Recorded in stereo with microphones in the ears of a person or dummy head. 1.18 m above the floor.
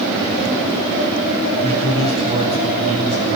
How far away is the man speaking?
About 9.5 m.